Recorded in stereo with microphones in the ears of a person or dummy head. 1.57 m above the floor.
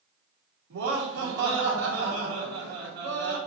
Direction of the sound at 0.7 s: 85° right.